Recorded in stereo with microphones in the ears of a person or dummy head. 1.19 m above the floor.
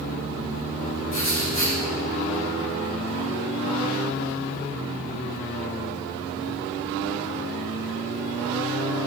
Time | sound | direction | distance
1.1 | writing | 40° left (ahead or behind) | 6.5 m